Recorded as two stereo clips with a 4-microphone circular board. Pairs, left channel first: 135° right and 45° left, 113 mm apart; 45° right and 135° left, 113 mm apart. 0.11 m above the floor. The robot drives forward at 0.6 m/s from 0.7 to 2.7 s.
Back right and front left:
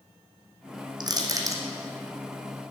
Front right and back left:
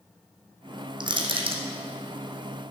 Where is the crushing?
95° left, 1.8 m; by 1.6 s 105° left, 1.8 m.